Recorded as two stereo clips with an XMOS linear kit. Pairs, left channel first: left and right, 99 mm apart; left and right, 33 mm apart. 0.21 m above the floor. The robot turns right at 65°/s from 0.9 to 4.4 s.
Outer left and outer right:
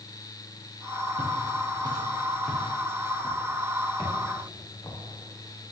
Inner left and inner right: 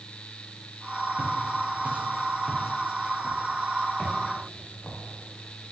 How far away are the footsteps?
About 3 m.